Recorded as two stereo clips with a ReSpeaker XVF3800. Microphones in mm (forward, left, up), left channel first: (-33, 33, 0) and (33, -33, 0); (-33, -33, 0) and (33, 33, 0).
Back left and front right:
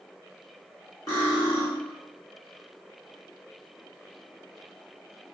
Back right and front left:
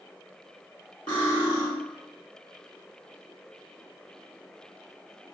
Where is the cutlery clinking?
175° right, 1.1 m.